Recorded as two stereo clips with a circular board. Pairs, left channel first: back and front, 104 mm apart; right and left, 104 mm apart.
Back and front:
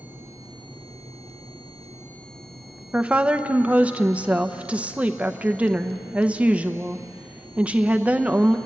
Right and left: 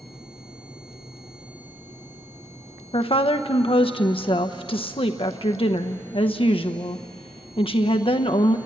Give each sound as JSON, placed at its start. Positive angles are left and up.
{"t": 2.9, "sound": "a woman speaking", "azimuth_deg": -75, "distance_m": 0.9}